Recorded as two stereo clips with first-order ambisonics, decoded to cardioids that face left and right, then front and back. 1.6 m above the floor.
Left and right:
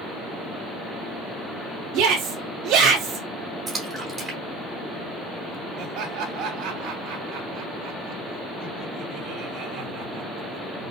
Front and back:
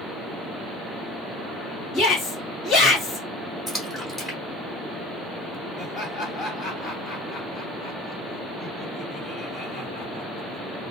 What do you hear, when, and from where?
1.9 s a shout: 75° right, 1.4 m
3.7 s a splash: 70° right, 1.3 m
5.8 s laughter: 75° right, 2.5 m